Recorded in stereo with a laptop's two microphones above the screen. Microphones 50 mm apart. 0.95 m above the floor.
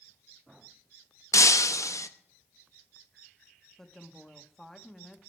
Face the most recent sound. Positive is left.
turn(degrees=5)  # may be behind; listen again after turning